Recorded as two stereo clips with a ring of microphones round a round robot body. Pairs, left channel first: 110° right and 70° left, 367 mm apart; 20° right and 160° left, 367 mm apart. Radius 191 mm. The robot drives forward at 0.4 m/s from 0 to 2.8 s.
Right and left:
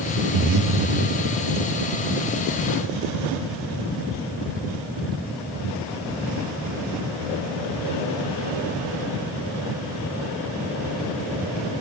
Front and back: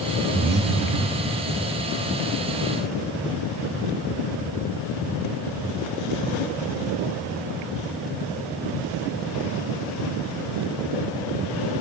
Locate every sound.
0.3 s breathing: 90° left, 0.7 m; by 1.4 s 125° left, 0.8 m